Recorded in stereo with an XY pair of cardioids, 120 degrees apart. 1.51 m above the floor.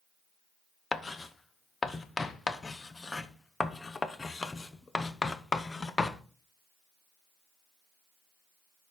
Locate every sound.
0.9 s writing: 20° left, 0.7 m